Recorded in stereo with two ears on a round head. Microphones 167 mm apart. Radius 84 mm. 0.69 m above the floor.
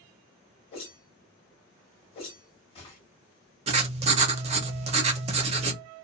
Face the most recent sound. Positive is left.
turn(degrees=-35)  # may be behind; listen again after turning